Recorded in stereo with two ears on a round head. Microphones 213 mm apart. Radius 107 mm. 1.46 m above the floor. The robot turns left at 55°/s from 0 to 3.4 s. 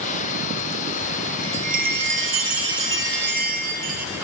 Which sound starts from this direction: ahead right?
A chime, at 1.4 s.